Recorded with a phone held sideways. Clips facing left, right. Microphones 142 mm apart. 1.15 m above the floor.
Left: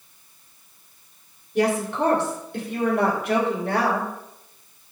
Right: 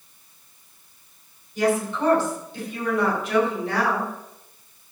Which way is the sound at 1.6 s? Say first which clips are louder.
Left 1 dB; 65° left (ahead or behind).